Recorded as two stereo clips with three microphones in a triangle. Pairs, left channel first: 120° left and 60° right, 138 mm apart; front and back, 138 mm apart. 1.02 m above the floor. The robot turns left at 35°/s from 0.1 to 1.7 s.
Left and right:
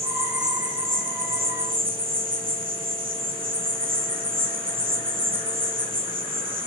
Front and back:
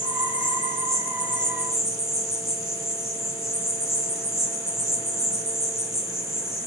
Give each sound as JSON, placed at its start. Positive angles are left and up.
{"t": 0.0, "sound": "an insect", "azimuth_deg": -15, "distance_m": 2.0}